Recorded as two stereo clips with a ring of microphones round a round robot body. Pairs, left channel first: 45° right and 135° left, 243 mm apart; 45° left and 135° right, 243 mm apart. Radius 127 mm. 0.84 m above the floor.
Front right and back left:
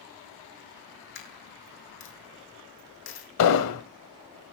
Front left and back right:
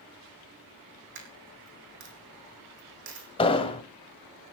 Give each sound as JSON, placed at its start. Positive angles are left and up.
{"t": 1.1, "sound": "a dropped coin", "azimuth_deg": -90, "distance_m": 3.5}
{"t": 3.4, "sound": "an explosion", "azimuth_deg": -25, "distance_m": 1.1}